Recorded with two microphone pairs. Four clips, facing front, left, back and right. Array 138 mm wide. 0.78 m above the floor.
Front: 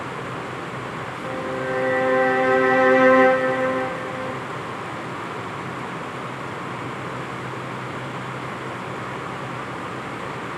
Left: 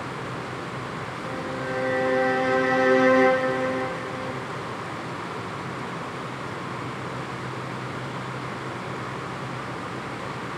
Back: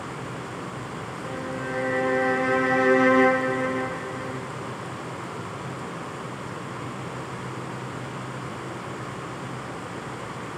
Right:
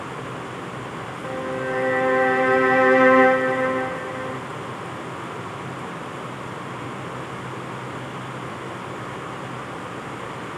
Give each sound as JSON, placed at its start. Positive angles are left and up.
{"t": 1.2, "sound": "a violin", "azimuth_deg": -40, "distance_m": 0.6}